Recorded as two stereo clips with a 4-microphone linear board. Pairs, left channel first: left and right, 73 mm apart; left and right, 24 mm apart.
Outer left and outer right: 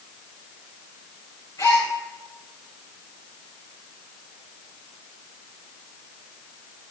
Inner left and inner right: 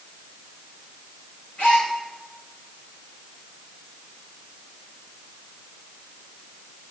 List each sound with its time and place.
1.6 s a gasp: 50° left (ahead or behind), 6 m